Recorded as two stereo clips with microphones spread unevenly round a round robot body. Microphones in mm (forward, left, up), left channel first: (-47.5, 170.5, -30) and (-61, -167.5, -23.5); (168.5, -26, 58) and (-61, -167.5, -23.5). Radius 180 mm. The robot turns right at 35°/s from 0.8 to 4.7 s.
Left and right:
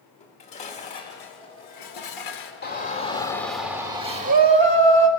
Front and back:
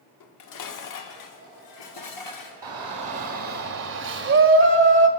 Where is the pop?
No pop in this recording.